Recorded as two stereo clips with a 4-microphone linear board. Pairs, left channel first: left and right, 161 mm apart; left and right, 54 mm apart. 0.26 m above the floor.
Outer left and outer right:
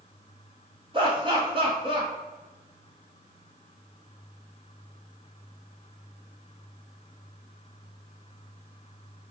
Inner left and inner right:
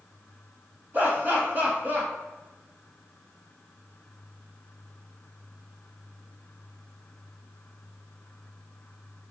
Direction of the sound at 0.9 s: 30° right (ahead or behind).